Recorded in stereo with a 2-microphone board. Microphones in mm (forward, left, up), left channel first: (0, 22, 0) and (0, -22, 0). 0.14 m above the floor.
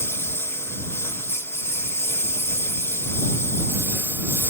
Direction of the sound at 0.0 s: 65° left (ahead or behind).